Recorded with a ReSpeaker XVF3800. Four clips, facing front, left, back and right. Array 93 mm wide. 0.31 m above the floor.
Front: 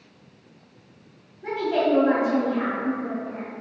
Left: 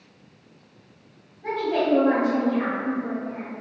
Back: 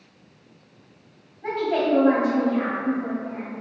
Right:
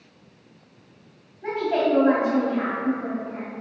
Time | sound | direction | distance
1.4 | a woman speaking | 125° right | 1.8 m